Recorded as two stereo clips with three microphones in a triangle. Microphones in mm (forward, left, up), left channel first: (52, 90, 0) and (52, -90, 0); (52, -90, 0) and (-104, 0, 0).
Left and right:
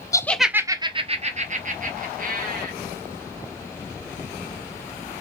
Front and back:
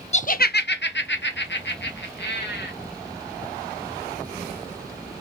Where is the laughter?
15° left, 0.6 m; by 2.7 s 55° right, 2 m.